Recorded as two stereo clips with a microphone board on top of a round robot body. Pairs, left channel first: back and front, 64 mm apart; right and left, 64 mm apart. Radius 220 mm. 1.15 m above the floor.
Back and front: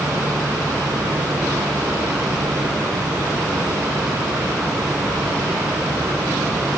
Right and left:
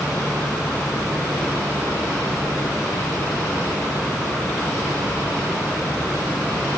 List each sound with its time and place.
Only background noise.